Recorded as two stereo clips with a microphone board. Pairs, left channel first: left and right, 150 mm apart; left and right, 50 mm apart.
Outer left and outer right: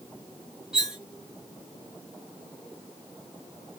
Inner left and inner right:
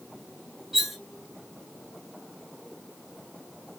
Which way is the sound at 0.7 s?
5° right (ahead or behind).